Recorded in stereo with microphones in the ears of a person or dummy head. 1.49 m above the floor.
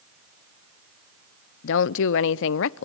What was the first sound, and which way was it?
A woman speaking, 65° left (ahead or behind).